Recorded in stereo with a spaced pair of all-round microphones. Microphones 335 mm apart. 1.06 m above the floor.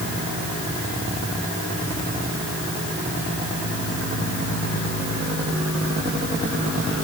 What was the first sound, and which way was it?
Only background noise.